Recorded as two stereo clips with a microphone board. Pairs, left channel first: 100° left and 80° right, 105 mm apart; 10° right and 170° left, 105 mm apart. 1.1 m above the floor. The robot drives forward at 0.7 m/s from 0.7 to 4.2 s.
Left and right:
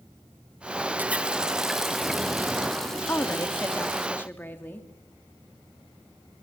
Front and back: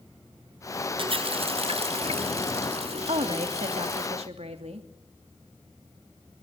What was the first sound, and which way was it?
A running tap, 150° right.